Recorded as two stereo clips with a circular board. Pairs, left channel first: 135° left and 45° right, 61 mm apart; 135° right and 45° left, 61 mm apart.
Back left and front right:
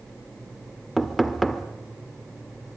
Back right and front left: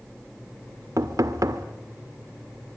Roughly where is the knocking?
Ahead left.